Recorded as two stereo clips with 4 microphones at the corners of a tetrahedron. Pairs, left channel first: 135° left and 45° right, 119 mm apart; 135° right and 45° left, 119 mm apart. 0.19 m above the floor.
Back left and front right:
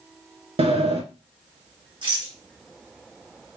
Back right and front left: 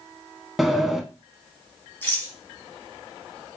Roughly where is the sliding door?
Ahead right.